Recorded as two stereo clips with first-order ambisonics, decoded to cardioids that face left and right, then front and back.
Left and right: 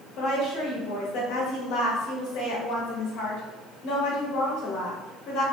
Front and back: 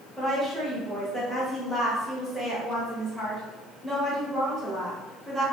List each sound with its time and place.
0.2 s a woman speaking: 85° left, 0.9 m